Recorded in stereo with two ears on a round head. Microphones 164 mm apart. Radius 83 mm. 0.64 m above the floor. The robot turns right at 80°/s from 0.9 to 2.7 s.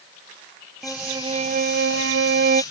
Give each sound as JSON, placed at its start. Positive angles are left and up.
{"t": 0.8, "sound": "a violin", "azimuth_deg": 180}